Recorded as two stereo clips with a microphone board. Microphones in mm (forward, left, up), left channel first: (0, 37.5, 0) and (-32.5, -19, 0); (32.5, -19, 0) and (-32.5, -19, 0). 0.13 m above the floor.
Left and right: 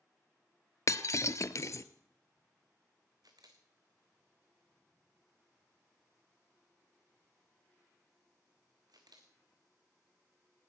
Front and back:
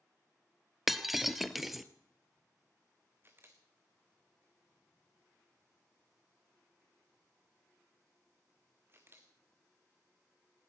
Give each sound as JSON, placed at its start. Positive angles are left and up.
{"t": 0.9, "sound": "breaking glass", "azimuth_deg": 90, "distance_m": 0.7}
{"t": 3.2, "sound": "a camera shutter", "azimuth_deg": -125, "distance_m": 1.8}